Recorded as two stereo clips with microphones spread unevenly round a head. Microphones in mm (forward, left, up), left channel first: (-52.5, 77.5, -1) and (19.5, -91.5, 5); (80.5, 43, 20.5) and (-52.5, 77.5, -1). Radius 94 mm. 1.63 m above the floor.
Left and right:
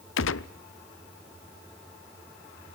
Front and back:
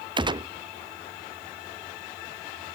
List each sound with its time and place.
0.2 s a gunshot: 105° left, 0.6 m